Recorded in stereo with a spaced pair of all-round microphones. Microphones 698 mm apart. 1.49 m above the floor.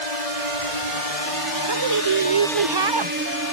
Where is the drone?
80° left; by 3.5 s 25° right (ahead or behind).